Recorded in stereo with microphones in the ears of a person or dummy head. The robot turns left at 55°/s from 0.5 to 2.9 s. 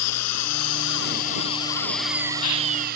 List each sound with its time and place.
0.0 s an engine running: 85° left; by 3.0 s 50° right